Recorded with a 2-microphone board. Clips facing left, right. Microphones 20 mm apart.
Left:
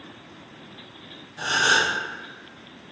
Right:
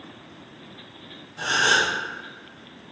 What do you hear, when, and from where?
1.4 s a gasp: centre (ahead or behind), 0.8 m